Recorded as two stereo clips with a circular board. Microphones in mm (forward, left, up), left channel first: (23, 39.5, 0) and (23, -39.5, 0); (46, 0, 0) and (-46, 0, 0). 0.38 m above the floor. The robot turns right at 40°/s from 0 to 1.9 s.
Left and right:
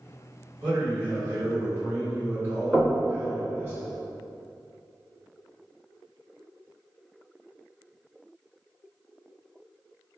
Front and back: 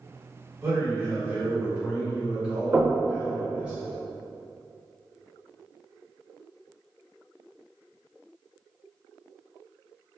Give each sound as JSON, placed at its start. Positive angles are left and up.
{"t": 0.6, "sound": "a man speaking", "azimuth_deg": -160, "distance_m": 1.4}
{"t": 2.7, "sound": "knocking", "azimuth_deg": 165, "distance_m": 0.9}